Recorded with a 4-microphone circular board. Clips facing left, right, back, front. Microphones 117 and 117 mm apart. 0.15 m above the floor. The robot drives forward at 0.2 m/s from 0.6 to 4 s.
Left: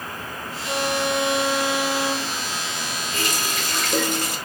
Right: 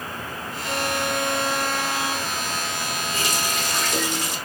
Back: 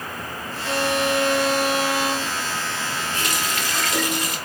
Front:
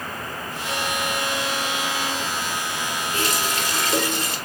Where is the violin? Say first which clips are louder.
Left 2 dB, back 6 dB; 165° left, 0.7 m; by 2.5 s 170° left, 1.0 m.